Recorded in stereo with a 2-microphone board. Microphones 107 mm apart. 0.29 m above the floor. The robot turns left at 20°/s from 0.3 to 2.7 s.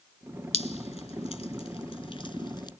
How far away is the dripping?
About 0.9 m.